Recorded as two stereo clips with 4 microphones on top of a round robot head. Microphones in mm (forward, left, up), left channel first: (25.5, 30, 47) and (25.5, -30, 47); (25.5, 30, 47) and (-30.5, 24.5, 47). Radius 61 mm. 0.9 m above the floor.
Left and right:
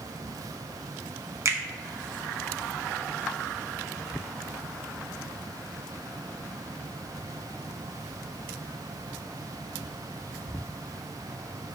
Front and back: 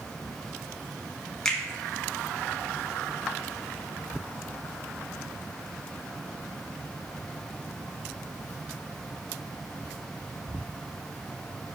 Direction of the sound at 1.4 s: 70° right.